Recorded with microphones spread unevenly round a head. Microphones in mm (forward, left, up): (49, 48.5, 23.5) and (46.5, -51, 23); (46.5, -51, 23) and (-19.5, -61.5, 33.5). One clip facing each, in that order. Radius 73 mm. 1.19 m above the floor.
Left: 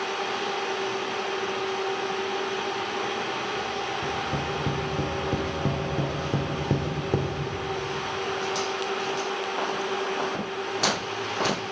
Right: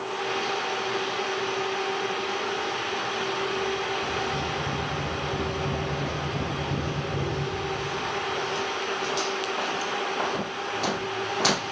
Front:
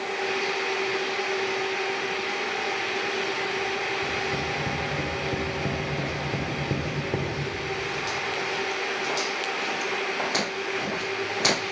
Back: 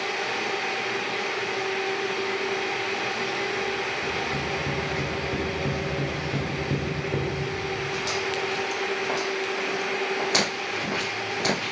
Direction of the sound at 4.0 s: 90° left.